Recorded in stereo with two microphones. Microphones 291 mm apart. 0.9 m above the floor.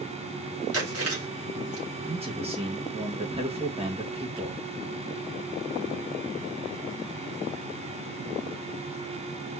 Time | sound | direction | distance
0.7 | chewing | 55° right (ahead or behind) | 1.7 m
2.1 | a man speaking | 20° right (ahead or behind) | 1.3 m